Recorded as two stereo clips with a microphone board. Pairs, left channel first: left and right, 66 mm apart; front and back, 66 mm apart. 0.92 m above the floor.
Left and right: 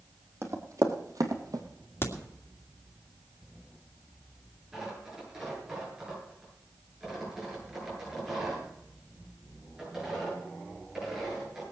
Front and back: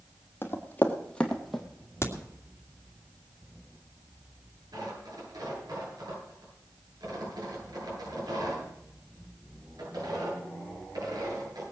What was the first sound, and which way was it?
Running footsteps, 50° right.